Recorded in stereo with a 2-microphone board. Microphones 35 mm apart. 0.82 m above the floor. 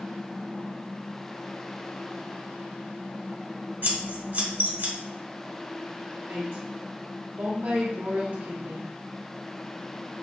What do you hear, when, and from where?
3.8 s scissors: 65° right (ahead or behind), 1.5 m
6.3 s a woman speaking: 70° right (ahead or behind), 1.5 m